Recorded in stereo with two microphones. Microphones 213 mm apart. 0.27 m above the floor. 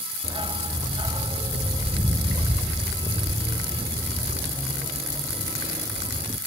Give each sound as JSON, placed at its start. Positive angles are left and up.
{"t": 0.2, "sound": "a dog barking", "side_deg": -20}